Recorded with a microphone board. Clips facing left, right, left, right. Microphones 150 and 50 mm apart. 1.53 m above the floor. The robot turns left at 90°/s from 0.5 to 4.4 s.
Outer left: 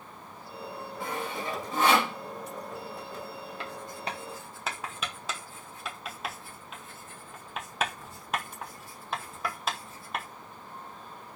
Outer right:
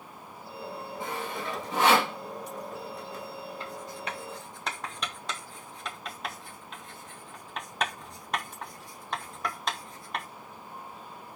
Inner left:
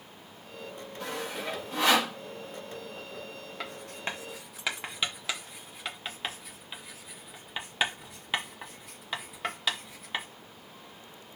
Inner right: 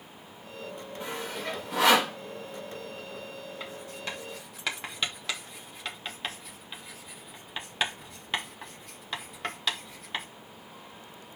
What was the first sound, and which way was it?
Sawing, 20° right (ahead or behind).